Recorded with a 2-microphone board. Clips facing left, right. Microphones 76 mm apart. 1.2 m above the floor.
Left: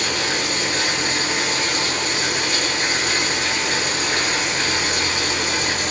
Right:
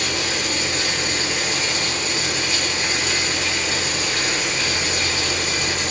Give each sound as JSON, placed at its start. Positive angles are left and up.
{"t": 0.0, "sound": "running water", "side_deg": 55, "distance_m": 2.5}